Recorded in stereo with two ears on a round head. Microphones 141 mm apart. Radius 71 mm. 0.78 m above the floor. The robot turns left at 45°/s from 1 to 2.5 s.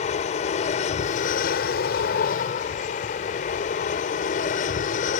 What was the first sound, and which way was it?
An aircraft, 125° left.